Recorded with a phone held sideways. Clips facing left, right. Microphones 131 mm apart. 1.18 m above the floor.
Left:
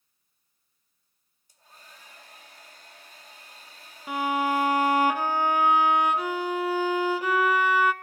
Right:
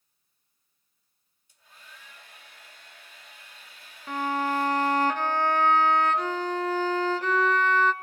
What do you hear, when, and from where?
1.5 s a hair dryer: 40° left (ahead or behind), 2.5 m
4.1 s a violin: 10° left (ahead or behind), 1.1 m